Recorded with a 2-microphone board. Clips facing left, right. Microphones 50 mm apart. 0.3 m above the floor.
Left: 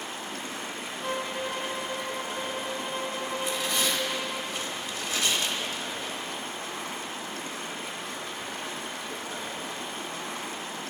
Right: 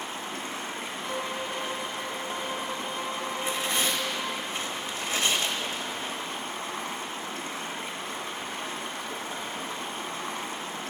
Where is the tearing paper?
35° right (ahead or behind), 0.8 m.